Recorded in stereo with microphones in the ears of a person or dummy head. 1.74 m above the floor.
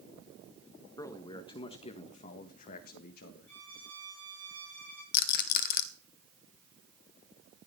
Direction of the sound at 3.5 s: 15° left (ahead or behind).